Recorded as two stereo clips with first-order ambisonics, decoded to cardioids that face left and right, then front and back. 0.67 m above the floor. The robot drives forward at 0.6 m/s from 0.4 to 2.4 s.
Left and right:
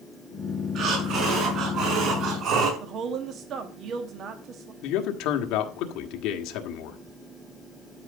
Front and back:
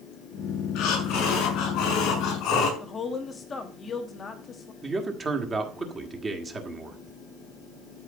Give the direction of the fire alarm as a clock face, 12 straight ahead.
No fire alarm in this recording.